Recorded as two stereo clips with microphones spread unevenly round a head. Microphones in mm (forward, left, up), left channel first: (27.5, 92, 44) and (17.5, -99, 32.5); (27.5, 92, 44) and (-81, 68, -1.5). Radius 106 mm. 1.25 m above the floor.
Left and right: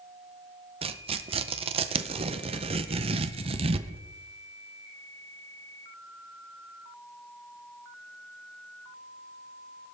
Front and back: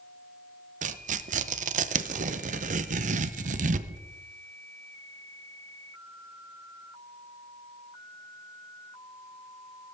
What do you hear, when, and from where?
0.8 s tearing paper: 155° right, 0.6 m